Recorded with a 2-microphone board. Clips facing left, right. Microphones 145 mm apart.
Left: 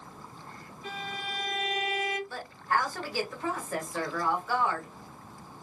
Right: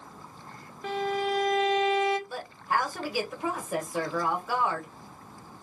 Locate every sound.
0.8 s a violin: 80° right, 0.5 m
2.3 s a woman speaking: 15° right (ahead or behind), 1.0 m